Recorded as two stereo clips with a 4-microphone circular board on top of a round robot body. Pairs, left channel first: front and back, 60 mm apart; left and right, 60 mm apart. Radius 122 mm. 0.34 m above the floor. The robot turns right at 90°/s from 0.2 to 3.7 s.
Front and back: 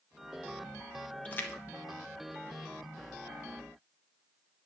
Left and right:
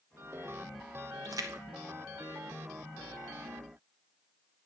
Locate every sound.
1.2 s a splash: 70° right, 0.7 m; by 3.1 s 95° left, 0.7 m